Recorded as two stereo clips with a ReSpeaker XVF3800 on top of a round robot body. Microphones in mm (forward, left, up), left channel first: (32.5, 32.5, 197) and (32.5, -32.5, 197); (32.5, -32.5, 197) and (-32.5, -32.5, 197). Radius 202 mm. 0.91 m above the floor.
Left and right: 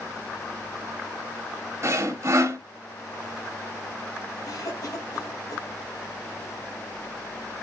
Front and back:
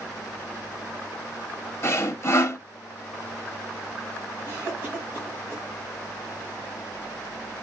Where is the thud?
No thud in this recording.